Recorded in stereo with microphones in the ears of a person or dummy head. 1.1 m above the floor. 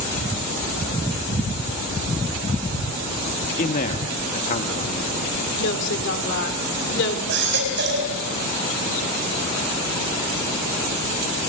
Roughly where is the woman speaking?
Left.